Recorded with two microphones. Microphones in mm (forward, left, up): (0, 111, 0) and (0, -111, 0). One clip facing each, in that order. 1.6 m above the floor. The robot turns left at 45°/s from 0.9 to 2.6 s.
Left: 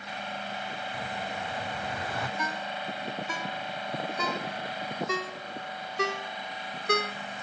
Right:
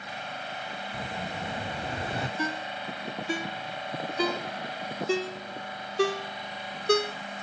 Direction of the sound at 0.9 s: 25° right (ahead or behind).